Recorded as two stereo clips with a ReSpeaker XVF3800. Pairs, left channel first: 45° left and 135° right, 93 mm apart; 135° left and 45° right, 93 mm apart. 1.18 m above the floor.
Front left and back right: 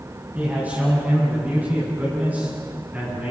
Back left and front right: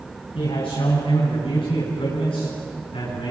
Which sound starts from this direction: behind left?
A man speaking, at 0.3 s.